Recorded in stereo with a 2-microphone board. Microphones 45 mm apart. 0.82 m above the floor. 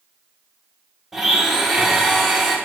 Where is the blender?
10° right (ahead or behind), 1.5 m.